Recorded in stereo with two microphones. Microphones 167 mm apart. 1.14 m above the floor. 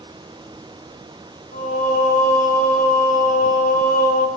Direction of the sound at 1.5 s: 55° left (ahead or behind).